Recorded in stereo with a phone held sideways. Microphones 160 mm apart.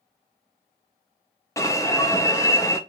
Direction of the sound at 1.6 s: 20° left (ahead or behind).